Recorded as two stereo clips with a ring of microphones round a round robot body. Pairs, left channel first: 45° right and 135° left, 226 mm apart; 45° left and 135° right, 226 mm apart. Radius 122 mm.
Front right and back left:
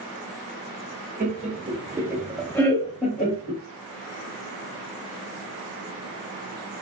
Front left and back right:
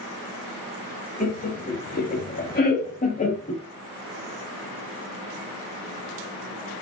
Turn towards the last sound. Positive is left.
turn(degrees=-10)